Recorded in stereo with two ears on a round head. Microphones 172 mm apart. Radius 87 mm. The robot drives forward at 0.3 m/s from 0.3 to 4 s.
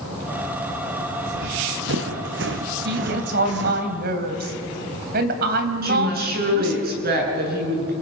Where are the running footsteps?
70° right (ahead or behind), 2.5 m; by 3.9 s 65° right (ahead or behind), 1.8 m.